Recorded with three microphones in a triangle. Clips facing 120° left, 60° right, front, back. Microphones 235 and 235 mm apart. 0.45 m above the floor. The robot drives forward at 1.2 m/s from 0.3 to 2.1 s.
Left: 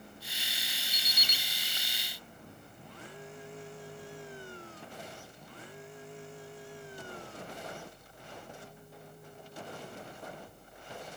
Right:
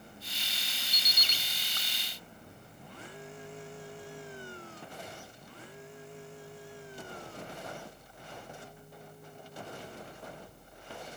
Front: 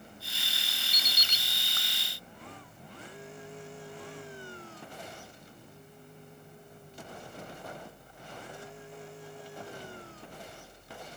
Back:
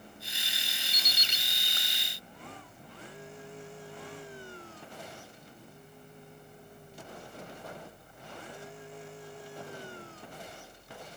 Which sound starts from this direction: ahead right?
An alarm clock, at 0.9 s.